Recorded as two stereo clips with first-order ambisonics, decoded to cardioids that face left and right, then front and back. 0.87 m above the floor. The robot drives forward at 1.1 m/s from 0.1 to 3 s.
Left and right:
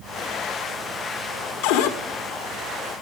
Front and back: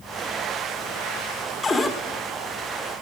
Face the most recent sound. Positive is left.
turn(degrees=130)